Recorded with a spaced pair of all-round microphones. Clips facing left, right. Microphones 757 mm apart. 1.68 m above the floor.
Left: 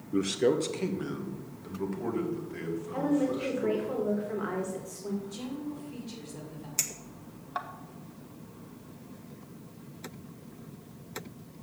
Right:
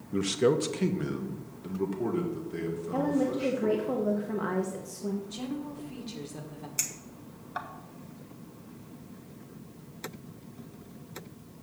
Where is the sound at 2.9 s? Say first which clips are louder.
Even; 65° right (ahead or behind), 1.2 m.